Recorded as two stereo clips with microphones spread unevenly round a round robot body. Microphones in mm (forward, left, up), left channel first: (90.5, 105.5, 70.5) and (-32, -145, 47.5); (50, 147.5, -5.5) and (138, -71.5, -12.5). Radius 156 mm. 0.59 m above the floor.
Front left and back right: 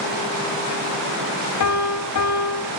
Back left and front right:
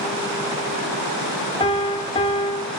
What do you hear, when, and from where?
1.6 s a piano: 45° left, 0.8 m